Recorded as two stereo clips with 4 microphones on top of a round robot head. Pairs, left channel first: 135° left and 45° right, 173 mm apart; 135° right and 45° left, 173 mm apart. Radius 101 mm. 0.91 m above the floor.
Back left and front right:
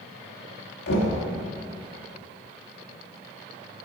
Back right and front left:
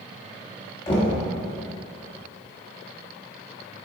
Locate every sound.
0.9 s knocking: 160° left, 1.3 m